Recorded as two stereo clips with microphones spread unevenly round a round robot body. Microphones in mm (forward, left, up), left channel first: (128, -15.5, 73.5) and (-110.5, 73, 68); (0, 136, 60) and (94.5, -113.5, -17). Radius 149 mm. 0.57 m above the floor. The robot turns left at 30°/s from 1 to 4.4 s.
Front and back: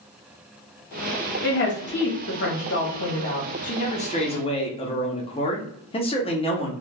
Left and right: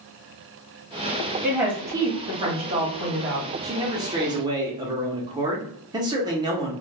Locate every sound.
1.4 s a woman speaking: 5° right, 1.1 m; by 3.5 s 65° right, 1.1 m
3.6 s a man speaking: 45° right, 0.7 m; by 6.7 s 70° right, 0.7 m